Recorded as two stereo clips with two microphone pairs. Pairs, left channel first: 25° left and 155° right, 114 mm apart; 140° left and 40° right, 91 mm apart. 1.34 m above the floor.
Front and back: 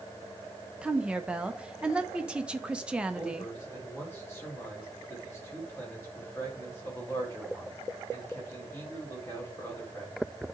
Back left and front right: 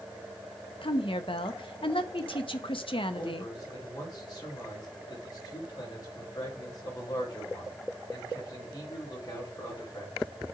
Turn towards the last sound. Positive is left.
turn(degrees=95)